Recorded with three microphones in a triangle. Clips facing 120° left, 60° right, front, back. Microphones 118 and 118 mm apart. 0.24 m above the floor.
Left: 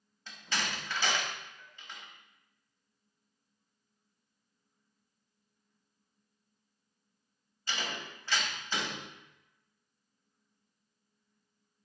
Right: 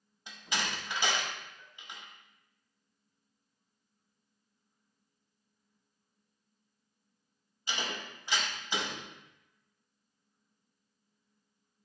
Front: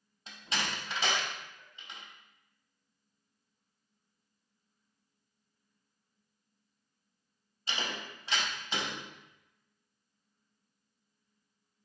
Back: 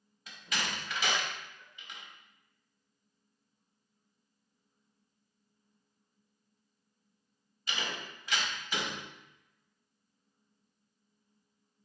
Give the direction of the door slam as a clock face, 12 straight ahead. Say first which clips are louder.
Even, front 1 dB; 12 o'clock.